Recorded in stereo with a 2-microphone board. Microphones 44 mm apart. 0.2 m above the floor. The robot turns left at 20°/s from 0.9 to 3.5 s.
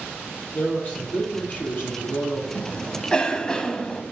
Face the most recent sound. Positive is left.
turn(degrees=20)  # may be behind; listen again after turning